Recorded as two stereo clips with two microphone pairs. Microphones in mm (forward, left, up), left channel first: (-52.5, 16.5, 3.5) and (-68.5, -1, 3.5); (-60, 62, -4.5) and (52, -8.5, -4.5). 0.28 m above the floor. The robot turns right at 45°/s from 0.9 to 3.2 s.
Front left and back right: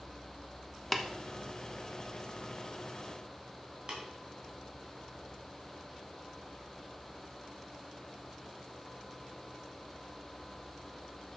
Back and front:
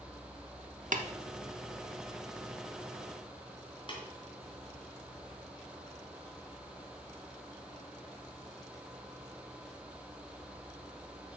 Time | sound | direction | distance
0.9 | tapping | 35° right | 0.8 m
3.9 | tapping | 170° right | 2.5 m